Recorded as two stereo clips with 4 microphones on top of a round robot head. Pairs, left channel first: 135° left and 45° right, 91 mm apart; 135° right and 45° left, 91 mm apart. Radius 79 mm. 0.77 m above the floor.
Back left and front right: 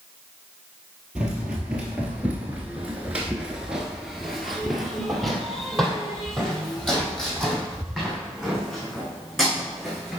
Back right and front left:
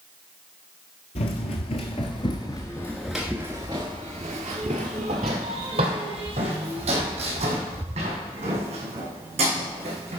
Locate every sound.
1.1 s running footsteps: 125° right, 1.3 m; by 10.2 s 50° left, 4 m